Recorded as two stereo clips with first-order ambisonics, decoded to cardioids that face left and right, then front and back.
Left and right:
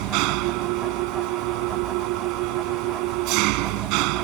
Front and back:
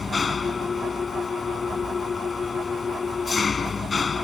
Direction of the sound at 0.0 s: 75° right.